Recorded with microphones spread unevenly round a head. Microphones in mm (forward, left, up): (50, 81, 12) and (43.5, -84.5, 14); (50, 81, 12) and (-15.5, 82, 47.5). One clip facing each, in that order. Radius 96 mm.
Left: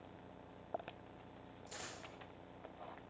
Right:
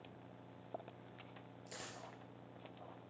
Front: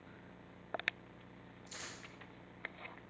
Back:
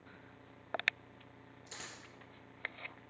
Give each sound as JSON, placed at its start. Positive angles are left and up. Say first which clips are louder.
{"t": 1.7, "sound": "a dropped coin", "louder": "even, even", "azimuth_deg": -165, "distance_m": 3.5}